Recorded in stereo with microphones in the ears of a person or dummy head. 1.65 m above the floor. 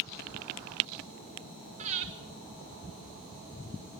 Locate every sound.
1.8 s breathing: 40° right (ahead or behind), 2.5 m